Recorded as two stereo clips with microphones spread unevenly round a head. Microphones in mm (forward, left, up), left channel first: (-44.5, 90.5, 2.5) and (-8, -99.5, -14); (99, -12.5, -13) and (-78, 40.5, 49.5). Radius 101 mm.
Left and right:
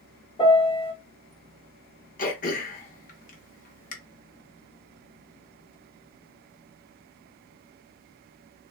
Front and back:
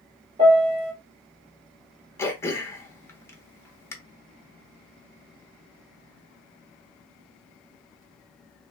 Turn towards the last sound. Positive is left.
turn(degrees=75)